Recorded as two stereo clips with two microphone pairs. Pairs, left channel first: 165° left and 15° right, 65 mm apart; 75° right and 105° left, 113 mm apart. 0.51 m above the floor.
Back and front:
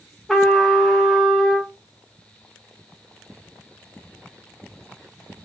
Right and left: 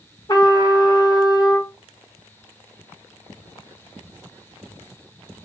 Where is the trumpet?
105° right, 1.7 m.